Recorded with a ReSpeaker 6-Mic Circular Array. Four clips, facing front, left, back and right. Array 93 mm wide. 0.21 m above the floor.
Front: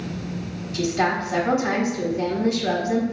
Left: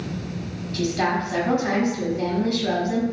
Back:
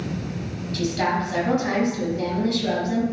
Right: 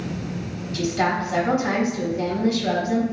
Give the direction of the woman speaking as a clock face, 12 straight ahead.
1 o'clock.